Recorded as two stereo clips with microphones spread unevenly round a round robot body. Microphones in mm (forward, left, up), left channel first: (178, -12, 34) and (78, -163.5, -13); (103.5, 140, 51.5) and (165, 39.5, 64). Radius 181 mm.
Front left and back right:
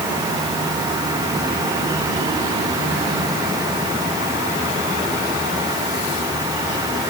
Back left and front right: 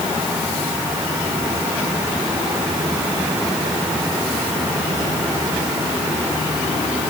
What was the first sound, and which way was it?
Only background noise.